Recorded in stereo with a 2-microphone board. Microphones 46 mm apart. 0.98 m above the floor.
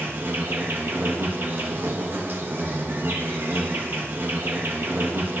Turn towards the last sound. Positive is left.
turn(degrees=-55)  # may be behind; listen again after turning